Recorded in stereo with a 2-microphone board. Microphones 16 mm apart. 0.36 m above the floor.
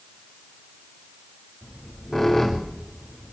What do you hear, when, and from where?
1.6 s a squeak: 10° left (ahead or behind), 4 m